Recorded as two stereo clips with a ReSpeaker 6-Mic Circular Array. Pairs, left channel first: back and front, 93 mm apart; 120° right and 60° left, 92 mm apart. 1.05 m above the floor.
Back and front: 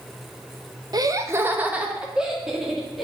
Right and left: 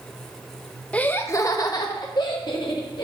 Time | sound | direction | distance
0.9 | laughter | 45° right | 0.6 m